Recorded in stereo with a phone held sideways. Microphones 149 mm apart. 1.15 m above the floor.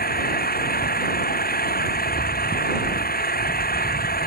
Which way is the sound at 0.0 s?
90° left.